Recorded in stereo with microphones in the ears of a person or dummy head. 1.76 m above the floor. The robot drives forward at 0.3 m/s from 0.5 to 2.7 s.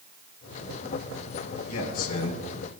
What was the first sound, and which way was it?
A man speaking, 45° left (ahead or behind).